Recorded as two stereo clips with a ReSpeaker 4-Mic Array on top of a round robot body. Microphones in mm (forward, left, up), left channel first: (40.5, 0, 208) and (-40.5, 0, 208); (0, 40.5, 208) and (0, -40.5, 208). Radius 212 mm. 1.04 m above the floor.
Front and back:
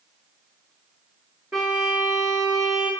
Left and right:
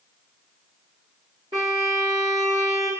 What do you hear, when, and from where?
1.5 s a violin: 110° right, 0.5 m